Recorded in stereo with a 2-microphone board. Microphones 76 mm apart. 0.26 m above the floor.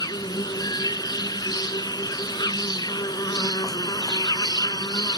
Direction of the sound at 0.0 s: 70° left (ahead or behind).